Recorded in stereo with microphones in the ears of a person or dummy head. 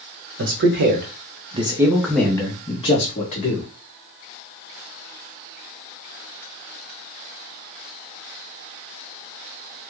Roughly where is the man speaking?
Right.